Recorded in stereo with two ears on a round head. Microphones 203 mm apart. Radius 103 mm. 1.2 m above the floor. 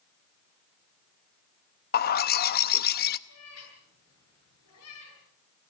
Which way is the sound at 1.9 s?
45° left (ahead or behind).